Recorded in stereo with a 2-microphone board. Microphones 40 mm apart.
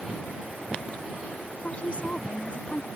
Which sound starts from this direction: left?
A woman speaking, at 1.6 s.